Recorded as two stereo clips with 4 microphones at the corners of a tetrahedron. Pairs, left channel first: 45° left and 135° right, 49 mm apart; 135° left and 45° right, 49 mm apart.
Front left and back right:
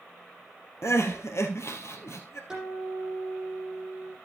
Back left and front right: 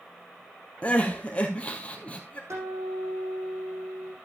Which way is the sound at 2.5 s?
55° right.